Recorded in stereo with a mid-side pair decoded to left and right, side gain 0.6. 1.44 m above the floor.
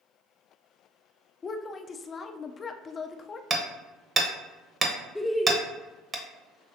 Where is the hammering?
30° right, 1.0 m.